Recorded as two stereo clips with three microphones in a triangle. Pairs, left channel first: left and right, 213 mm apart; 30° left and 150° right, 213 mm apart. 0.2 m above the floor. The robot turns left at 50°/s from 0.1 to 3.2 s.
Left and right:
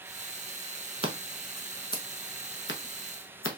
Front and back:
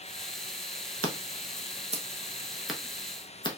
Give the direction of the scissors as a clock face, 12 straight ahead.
5 o'clock.